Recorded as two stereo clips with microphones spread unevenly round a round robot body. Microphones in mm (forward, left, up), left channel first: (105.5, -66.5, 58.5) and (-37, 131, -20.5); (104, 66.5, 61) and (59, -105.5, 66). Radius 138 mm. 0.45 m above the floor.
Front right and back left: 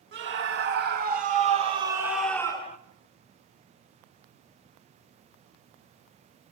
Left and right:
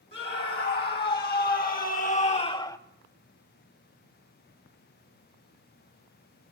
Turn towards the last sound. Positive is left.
turn(degrees=15)